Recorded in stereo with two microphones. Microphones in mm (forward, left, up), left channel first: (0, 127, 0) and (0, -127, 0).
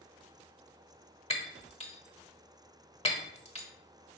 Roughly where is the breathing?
I don't hear breathing.